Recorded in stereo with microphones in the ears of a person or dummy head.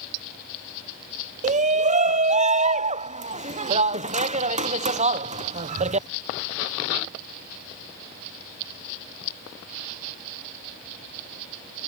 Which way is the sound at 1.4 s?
40° right (ahead or behind).